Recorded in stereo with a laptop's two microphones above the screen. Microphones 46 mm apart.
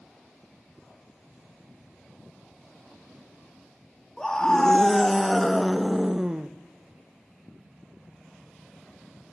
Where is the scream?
15° left (ahead or behind), 1.6 m; by 6.5 s 20° right (ahead or behind), 0.7 m.